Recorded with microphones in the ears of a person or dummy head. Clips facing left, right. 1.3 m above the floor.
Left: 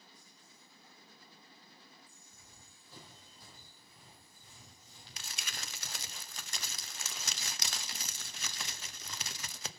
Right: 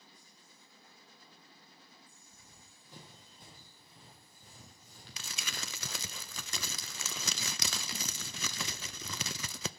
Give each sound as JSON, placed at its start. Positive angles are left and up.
{"t": 2.3, "sound": "running footsteps", "side_deg": -10, "distance_m": 3.5}
{"t": 5.2, "sound": "crumpling", "side_deg": -70, "distance_m": 0.6}